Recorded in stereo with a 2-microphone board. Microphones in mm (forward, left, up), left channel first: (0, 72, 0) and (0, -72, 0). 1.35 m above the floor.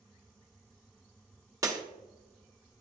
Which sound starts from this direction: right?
Breaking glass, at 1.6 s.